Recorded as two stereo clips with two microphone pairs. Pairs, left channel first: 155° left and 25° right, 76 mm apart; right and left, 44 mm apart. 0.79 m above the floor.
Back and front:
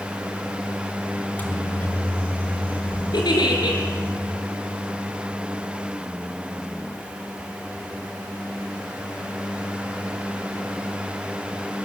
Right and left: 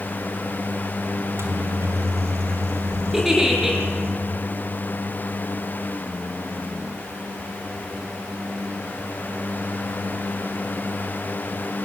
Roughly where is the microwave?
Left.